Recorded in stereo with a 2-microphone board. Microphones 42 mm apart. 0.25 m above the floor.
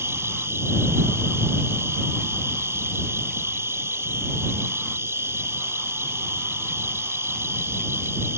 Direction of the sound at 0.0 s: 85° right.